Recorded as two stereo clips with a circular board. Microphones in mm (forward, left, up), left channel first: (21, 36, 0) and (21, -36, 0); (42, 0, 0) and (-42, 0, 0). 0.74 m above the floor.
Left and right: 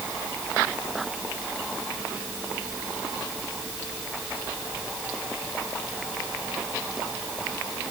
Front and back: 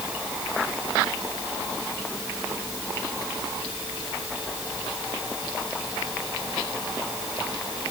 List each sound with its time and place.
Only background noise.